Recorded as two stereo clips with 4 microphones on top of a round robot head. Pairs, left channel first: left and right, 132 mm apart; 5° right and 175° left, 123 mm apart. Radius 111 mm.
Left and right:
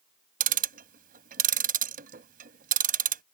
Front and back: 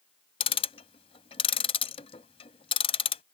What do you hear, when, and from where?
0.4 s ticking: 60° right